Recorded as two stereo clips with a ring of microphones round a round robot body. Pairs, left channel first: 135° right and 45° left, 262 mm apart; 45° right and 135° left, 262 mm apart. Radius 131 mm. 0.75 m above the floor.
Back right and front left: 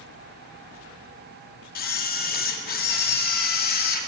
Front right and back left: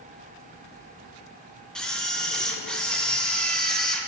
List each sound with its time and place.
1.8 s a camera shutter: 130° right, 0.7 m